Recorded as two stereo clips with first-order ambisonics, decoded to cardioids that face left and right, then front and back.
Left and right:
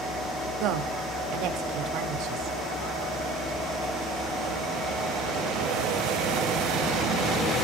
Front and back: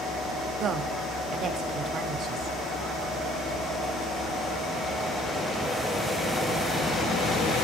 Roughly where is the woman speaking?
Behind right.